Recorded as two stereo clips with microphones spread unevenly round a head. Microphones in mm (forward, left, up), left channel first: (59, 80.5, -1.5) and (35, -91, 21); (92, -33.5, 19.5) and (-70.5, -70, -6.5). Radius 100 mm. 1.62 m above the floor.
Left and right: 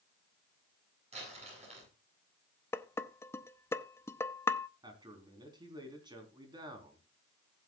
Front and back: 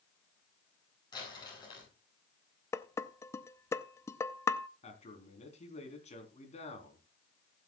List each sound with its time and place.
1.1 s crumpling: 50° right, 8 m
2.7 s dishes clattering: 10° left, 0.6 m
4.8 s a man speaking: 35° right, 4 m